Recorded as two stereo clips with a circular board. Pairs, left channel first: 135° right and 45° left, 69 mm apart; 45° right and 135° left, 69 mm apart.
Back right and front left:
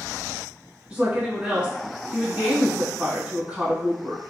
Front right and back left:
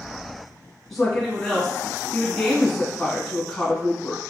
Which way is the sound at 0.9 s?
35° left.